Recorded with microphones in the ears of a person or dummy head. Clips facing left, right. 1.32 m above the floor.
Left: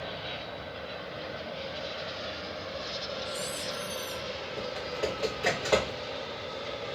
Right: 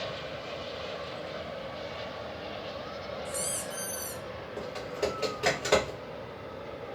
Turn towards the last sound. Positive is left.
turn(degrees=-35)  # may be behind; listen again after turning